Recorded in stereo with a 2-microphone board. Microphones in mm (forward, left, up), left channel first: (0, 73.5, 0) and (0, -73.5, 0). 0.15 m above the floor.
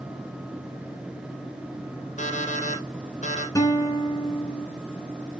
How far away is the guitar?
About 1.6 m.